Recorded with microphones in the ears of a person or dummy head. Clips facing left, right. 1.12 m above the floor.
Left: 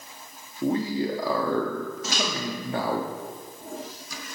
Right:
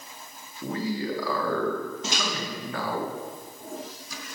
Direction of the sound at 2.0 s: 25° right (ahead or behind).